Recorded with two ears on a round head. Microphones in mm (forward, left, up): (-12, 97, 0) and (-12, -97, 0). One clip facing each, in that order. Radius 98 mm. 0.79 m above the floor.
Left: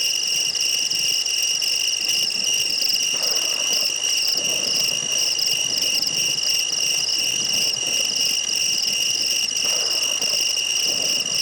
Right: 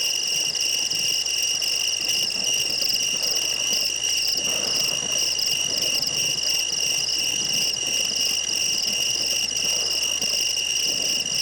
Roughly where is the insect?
Centre.